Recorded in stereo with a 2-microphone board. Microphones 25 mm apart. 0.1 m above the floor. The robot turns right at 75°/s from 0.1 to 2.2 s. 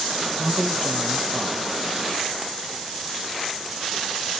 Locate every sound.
0.4 s a man speaking: 40° left, 1.2 m; by 1.7 s 145° left, 1.2 m